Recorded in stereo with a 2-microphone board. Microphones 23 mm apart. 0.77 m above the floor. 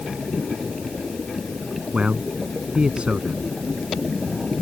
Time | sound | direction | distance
1.9 | a man speaking | 55° right (ahead or behind) | ?